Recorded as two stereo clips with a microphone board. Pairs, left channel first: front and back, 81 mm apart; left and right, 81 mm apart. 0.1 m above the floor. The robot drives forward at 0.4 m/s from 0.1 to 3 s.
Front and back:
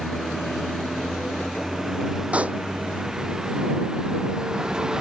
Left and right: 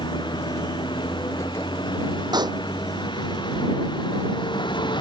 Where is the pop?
110° right.